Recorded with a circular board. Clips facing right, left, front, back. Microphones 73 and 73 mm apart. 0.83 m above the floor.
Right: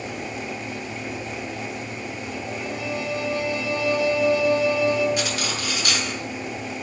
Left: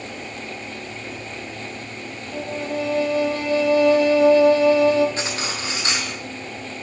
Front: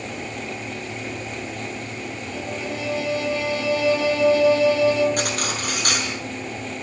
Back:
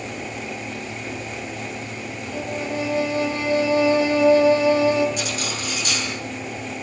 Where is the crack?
I don't hear a crack.